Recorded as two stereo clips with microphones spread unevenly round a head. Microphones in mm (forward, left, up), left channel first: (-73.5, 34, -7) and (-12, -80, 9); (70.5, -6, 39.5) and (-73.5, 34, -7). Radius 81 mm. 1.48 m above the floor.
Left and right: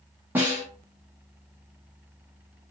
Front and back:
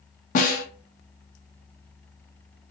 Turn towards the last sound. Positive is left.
turn(degrees=15)